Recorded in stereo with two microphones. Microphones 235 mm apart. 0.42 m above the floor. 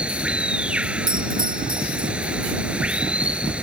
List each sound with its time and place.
0.0 s running water: 5° right (ahead or behind)
1.1 s a doorbell: 40° right (ahead or behind)